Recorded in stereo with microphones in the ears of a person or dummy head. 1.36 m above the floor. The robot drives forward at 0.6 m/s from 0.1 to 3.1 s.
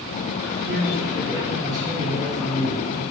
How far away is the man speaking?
About 4 m.